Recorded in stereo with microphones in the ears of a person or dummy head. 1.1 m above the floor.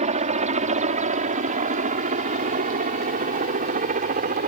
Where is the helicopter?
30° right (ahead or behind); by 4.5 s 40° right (ahead or behind).